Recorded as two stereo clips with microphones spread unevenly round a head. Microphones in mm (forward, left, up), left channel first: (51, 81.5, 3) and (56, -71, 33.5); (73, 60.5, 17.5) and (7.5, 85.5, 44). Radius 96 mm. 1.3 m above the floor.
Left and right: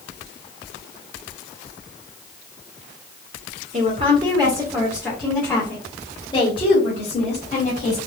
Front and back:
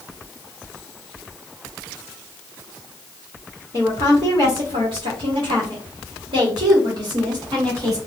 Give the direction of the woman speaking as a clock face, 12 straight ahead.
5 o'clock.